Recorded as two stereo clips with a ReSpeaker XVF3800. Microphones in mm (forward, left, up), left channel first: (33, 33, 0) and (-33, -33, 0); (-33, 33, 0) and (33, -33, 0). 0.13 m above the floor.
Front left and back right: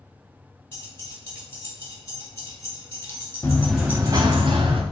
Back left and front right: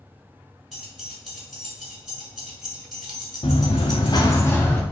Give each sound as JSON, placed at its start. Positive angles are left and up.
{"t": 0.7, "sound": "keys jangling", "azimuth_deg": 45, "distance_m": 1.0}
{"t": 3.4, "sound": "running footsteps", "azimuth_deg": 115, "distance_m": 0.7}